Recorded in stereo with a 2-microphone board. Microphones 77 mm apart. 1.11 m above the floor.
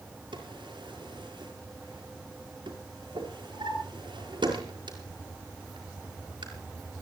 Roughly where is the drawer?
Right.